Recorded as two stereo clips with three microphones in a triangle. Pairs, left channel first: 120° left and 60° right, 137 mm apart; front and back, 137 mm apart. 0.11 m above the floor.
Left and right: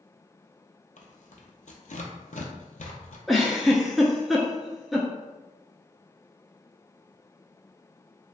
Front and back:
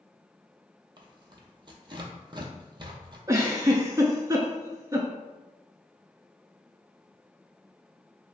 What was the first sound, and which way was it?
Tearing paper, 130° left.